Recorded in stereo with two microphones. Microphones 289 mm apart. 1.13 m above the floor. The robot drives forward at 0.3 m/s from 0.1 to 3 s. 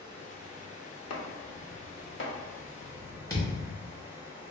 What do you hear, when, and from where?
0.0 s running water: 15° right (ahead or behind), 0.9 m; by 4.5 s 10° right (ahead or behind), 1.6 m
1.1 s chopping: 60° left (ahead or behind), 0.5 m; by 2.3 s 40° left (ahead or behind), 0.7 m
3.3 s a thud: 10° left (ahead or behind), 1.0 m